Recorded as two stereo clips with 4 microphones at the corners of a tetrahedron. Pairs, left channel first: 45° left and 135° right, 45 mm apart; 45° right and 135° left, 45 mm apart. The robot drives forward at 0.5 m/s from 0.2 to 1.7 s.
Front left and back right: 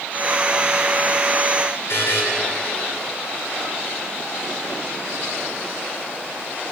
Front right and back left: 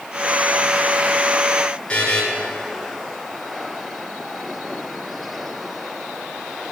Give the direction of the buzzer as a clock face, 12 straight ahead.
11 o'clock.